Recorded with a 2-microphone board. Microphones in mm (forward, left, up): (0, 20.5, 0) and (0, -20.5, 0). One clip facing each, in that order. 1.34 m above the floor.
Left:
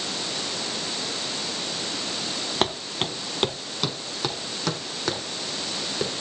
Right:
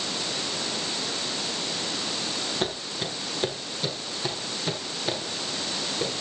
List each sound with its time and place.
2.6 s footsteps: 55° left (ahead or behind), 2 m; by 6.1 s 75° left (ahead or behind), 5.5 m